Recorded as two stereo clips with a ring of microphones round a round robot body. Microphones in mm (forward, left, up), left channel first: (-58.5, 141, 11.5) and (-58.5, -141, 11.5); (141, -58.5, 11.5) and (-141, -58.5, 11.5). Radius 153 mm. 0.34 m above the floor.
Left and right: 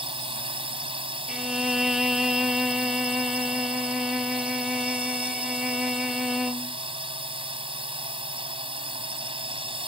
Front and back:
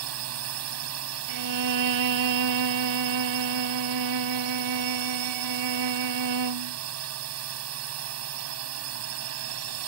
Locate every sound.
0.0 s a drone: 160° right
1.3 s a violin: straight behind